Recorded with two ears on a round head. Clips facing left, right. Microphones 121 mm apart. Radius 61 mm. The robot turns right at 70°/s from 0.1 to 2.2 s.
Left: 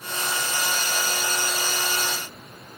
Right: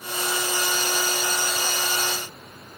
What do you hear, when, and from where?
Only background noise.